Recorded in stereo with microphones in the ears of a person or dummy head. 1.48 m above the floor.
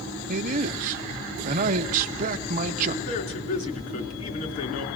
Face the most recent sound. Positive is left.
turn(degrees=45)  # may be behind; listen again after turning